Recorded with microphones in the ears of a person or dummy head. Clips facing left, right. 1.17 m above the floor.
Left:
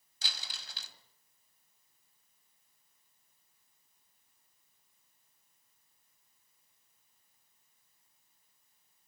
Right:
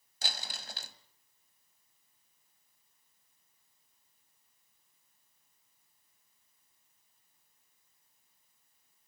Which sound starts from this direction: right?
Crumpling, at 0.2 s.